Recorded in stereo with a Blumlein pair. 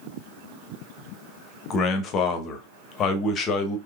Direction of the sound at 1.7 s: 30° left.